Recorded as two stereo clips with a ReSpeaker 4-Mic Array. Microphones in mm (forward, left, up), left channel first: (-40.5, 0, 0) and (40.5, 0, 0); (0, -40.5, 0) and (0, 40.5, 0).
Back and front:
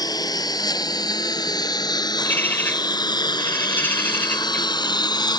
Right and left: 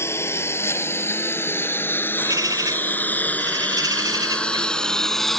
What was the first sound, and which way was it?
A lawn mower, 145° right.